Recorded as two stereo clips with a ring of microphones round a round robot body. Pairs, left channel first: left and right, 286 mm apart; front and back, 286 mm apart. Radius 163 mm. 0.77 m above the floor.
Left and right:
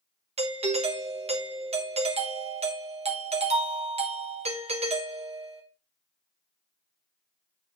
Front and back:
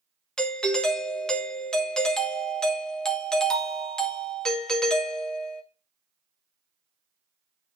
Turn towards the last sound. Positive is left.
turn(degrees=-85)